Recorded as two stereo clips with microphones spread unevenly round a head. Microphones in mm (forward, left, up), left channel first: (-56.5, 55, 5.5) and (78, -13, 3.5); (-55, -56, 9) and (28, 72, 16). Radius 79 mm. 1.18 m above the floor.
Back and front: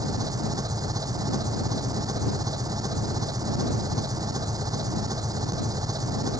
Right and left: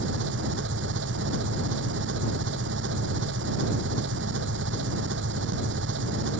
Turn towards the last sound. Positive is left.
turn(degrees=40)